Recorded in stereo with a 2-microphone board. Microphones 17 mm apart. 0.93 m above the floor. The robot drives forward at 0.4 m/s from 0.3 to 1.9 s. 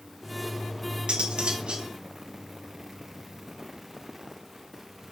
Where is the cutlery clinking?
85° right, 1.3 m; by 1.9 s 75° right (ahead or behind), 1.3 m.